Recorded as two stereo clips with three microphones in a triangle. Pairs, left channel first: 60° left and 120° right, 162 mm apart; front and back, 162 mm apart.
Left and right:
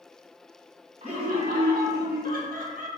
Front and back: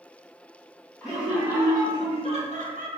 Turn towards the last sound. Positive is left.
turn(degrees=-155)